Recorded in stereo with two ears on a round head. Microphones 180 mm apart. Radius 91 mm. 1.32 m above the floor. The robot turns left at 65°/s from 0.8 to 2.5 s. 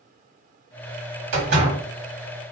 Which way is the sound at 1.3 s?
105° right.